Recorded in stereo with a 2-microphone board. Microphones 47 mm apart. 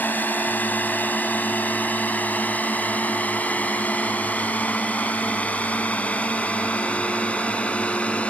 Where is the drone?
40° left (ahead or behind); by 8.3 s 30° left (ahead or behind).